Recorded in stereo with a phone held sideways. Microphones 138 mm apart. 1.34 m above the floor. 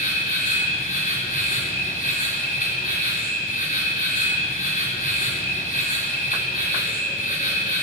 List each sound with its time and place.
0.0 s an insect: 80° left, 5 m